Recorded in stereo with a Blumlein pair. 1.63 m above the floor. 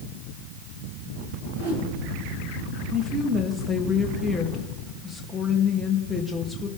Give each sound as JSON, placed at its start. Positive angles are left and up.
{"t": 1.5, "sound": "a whoosh", "azimuth_deg": -45, "distance_m": 8.5}
{"t": 2.9, "sound": "a woman speaking", "azimuth_deg": 5, "distance_m": 3.0}